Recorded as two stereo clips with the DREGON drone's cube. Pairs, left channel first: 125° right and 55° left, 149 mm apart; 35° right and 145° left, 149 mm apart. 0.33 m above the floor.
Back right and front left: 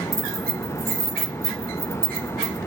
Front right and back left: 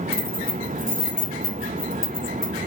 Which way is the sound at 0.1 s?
15° right.